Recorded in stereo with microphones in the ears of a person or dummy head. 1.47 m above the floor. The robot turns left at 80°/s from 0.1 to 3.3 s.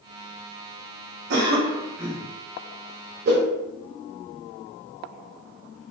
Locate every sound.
1.3 s a cough: 110° right, 1.1 m; by 2.3 s 175° left, 1.1 m
3.2 s a whoosh: 50° right (ahead or behind), 1.1 m